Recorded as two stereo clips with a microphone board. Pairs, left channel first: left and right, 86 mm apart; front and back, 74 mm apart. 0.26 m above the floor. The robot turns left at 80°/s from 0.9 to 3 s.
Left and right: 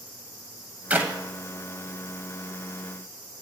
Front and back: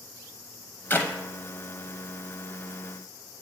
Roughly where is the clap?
Ahead right.